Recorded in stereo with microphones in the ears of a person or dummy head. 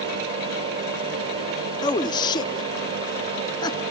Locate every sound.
0.0 s a fan: 35° right (ahead or behind), 1.6 m
1.8 s a man speaking: 25° left (ahead or behind), 0.5 m